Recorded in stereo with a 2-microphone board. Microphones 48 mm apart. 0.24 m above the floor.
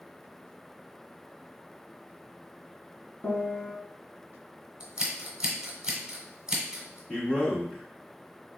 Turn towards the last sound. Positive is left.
turn(degrees=25)  # may be behind; listen again after turning